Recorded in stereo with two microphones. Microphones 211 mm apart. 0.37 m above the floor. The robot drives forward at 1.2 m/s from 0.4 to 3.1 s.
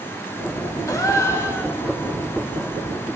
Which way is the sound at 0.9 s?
15° left (ahead or behind).